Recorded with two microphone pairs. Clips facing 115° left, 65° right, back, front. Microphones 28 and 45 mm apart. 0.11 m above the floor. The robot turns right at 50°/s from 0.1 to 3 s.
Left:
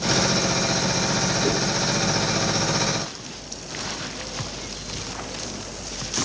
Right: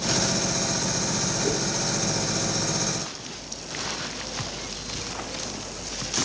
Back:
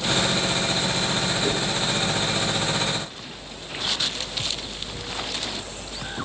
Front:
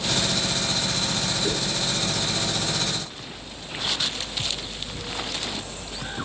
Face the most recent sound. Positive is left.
turn(degrees=-150)